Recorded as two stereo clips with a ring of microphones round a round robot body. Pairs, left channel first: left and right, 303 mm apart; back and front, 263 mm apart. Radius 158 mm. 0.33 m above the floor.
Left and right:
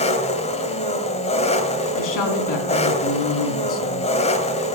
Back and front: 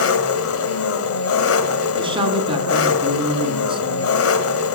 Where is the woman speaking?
70° left, 3.5 m.